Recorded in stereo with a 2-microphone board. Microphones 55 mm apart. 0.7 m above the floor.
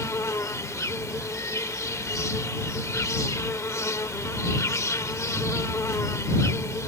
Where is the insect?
70° left (ahead or behind).